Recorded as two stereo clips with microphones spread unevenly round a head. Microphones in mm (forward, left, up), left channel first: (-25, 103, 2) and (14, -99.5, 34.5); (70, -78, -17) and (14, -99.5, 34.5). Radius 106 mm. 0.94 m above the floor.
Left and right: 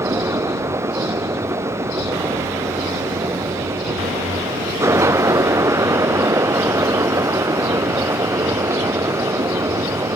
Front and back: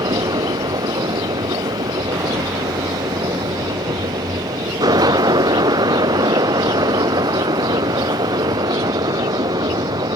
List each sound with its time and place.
0.0 s a fan: 155° right